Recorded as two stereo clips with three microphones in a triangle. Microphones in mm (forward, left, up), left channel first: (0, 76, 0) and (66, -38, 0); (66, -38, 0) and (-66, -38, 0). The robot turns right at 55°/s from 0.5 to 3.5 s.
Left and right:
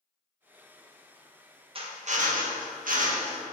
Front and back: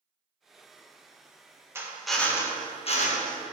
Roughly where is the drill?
Right.